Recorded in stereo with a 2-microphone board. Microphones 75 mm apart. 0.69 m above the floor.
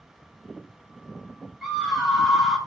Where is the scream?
5° right (ahead or behind), 5 m.